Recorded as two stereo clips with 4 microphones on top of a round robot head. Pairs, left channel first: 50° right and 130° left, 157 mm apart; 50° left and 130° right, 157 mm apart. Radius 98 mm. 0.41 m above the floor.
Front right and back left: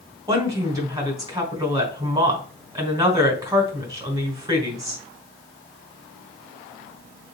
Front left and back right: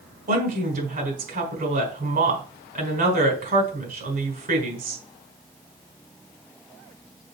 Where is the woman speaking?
160° right, 4 m.